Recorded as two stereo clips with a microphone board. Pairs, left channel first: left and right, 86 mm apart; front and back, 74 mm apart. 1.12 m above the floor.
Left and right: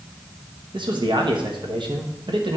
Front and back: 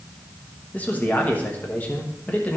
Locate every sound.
0.7 s a man speaking: 65° right, 1.1 m